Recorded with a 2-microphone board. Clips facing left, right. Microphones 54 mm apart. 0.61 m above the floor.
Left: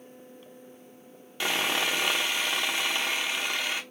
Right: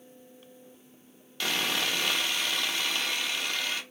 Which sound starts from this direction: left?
Sawing, at 1.4 s.